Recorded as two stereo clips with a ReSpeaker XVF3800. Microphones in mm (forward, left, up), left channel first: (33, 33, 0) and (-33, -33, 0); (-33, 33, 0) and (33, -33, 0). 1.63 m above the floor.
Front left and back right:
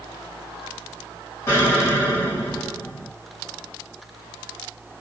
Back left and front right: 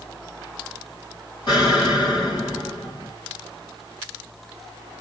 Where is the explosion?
100° left, 2 m.